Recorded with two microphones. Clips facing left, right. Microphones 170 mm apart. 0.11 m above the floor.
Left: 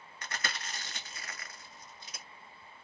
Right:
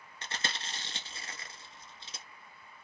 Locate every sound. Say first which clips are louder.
0.2 s chewing: even; 30° right (ahead or behind), 0.8 m